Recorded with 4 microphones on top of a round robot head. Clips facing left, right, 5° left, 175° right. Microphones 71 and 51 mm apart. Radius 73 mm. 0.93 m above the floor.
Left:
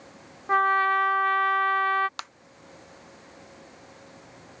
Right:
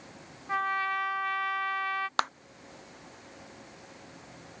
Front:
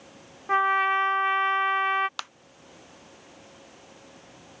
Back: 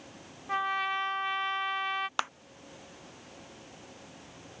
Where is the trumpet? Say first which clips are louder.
Left 8 dB, front 8 dB; 50° left.